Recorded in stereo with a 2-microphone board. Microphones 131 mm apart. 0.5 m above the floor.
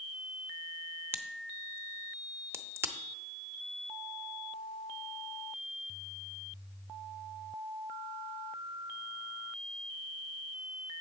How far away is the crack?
About 0.7 m.